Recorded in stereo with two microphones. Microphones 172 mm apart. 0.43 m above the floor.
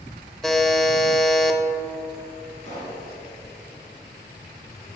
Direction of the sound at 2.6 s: 40° left (ahead or behind).